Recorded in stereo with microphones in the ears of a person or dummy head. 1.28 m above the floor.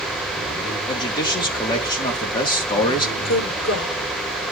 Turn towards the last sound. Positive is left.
turn(degrees=70)  # may be behind; listen again after turning